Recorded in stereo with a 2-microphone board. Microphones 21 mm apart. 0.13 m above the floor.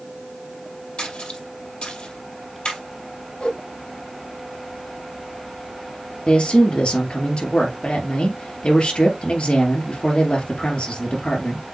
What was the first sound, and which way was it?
A splash, 55° left (ahead or behind).